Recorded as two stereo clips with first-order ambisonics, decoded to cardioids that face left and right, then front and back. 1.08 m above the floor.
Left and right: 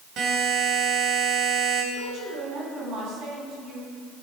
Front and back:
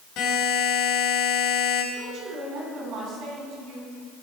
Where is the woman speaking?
135° right, 7.5 m.